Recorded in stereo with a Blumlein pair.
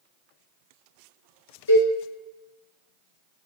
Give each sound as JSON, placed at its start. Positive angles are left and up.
{"t": 1.7, "sound": "a cowbell", "azimuth_deg": 60, "distance_m": 1.6}